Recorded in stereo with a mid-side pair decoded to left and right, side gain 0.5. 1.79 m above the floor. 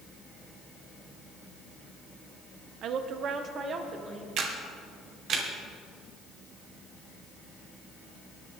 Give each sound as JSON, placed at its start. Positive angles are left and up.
{"t": 2.8, "sound": "a woman speaking", "azimuth_deg": -65, "distance_m": 1.0}
{"t": 4.4, "sound": "a camera shutter", "azimuth_deg": -65, "distance_m": 1.9}